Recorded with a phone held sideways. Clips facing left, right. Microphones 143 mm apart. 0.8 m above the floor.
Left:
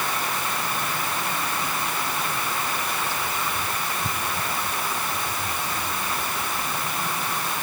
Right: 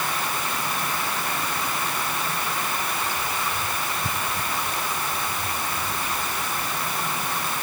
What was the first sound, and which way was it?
Only background noise.